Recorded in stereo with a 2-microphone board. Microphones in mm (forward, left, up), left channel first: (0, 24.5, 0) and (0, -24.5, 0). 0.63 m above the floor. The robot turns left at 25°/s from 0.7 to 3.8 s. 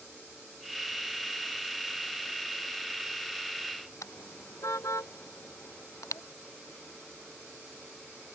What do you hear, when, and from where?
4.0 s a car horn: 90° left